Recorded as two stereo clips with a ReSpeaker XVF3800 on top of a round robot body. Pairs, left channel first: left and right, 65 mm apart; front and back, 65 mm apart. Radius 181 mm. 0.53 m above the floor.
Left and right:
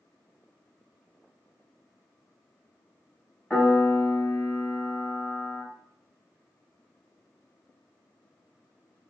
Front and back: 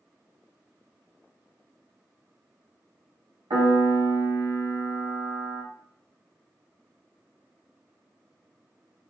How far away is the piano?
About 1.1 m.